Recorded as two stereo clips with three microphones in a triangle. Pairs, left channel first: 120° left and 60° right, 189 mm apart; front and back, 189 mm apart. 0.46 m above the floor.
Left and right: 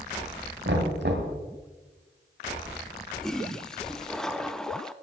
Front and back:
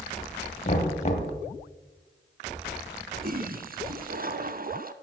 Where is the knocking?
45° right, 1.9 m.